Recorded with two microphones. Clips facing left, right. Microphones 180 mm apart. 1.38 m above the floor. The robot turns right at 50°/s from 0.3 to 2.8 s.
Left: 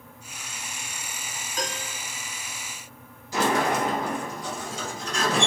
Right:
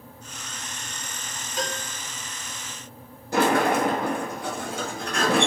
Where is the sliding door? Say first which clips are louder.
Right 3 dB; 60° right (ahead or behind), 0.9 m.